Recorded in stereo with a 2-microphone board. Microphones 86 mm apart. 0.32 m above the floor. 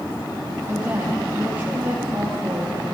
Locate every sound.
0.7 s a woman speaking: 20° right (ahead or behind), 10 m